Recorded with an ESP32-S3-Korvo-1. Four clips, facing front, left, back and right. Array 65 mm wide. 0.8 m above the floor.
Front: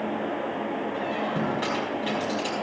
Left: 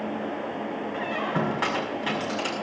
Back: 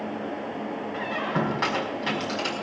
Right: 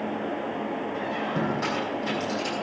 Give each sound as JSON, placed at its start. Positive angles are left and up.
{"t": 0.9, "sound": "a squeak", "azimuth_deg": 130, "distance_m": 5.0}